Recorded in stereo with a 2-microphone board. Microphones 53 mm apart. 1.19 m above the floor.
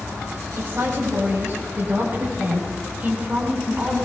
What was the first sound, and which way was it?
A woman speaking, 50° right (ahead or behind).